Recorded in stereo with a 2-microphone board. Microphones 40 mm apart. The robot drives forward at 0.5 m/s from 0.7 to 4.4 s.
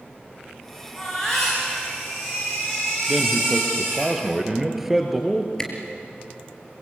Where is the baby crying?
10° left (ahead or behind), 9 m.